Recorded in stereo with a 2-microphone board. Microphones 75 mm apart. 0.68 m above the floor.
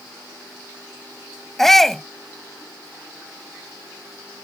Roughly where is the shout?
Centre.